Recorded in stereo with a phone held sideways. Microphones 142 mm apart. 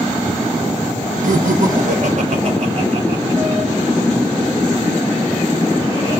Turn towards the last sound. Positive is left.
turn(degrees=-30)  # may be behind; listen again after turning